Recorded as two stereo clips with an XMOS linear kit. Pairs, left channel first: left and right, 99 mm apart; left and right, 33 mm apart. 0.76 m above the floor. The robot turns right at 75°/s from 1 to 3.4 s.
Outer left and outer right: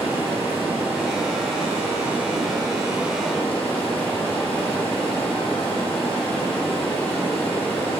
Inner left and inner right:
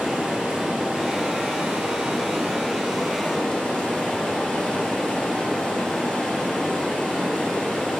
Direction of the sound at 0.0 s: 165° right.